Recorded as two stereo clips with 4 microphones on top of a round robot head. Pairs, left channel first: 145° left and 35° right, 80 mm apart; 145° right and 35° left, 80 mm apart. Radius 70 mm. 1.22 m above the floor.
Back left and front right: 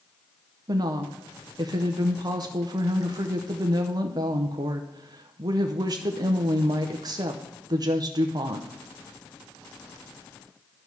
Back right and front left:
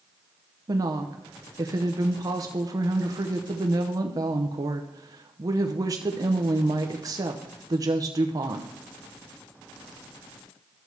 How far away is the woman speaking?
About 0.8 m.